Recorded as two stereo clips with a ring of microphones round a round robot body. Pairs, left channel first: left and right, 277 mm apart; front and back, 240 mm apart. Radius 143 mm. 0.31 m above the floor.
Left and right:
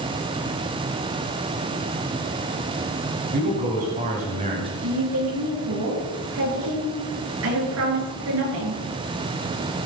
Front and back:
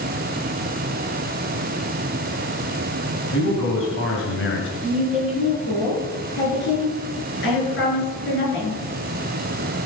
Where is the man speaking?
35° right, 3 m; by 4.7 s 25° right, 2.5 m.